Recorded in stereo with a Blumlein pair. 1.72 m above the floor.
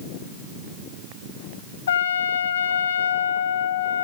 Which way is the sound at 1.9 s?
65° left.